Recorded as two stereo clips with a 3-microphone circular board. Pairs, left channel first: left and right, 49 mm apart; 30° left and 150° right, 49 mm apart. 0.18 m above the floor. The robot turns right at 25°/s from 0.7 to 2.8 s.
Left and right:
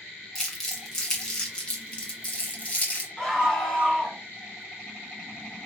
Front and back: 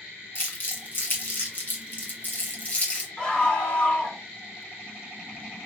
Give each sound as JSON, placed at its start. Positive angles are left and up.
{"t": 0.3, "sound": "crumpling", "azimuth_deg": 5, "distance_m": 1.6}
{"t": 3.2, "sound": "a scream", "azimuth_deg": 15, "distance_m": 1.3}